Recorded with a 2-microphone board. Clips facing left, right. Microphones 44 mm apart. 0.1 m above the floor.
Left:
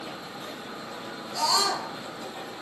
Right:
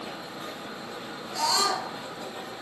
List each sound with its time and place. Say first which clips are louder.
1.3 s a scream: even; 15° right (ahead or behind), 2 m